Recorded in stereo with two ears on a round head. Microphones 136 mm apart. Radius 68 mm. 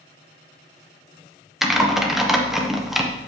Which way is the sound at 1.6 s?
Centre (ahead or behind).